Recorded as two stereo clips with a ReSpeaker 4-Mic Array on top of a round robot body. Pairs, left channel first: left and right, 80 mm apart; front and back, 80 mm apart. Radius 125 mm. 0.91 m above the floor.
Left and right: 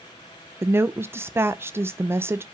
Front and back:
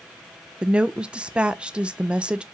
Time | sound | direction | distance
0.6 | a woman speaking | 115° right | 0.6 m